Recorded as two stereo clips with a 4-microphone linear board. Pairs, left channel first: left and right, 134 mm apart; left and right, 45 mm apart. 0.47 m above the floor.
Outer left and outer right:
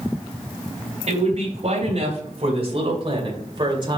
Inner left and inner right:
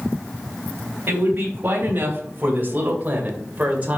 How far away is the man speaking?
About 3 m.